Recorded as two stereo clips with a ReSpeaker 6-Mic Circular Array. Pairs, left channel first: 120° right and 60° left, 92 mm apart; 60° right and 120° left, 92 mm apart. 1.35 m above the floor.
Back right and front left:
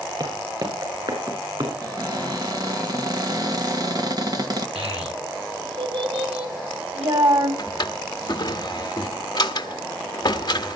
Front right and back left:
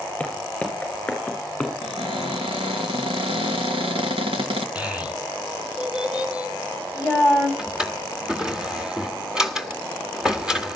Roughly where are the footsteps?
Ahead.